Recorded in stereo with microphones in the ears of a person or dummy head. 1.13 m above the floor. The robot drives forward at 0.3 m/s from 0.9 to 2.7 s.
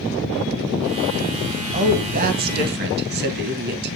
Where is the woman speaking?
40° right (ahead or behind), 0.9 m; by 4.0 s 55° right (ahead or behind), 0.8 m.